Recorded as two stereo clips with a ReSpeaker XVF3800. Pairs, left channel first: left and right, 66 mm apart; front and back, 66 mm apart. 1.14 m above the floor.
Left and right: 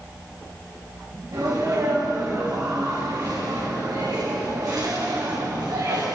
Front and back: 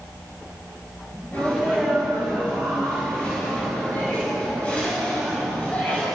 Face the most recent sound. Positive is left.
turn(degrees=-65)